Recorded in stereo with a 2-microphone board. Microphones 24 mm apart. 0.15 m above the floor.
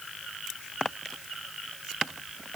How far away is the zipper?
I don't hear a zipper.